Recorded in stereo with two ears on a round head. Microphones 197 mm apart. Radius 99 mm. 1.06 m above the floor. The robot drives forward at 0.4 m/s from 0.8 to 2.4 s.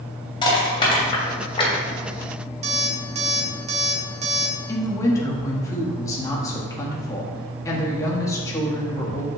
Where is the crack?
No crack in this recording.